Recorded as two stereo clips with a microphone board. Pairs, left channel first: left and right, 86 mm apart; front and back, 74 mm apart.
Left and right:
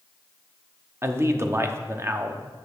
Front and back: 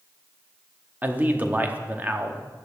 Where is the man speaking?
125° right, 1.0 m.